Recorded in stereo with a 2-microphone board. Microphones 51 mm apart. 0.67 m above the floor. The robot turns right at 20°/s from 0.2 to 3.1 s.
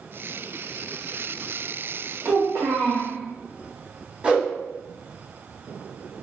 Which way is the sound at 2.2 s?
85° right.